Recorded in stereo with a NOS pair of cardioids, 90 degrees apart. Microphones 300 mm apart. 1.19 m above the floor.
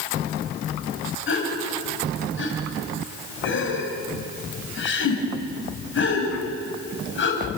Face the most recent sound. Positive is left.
turn(degrees=40)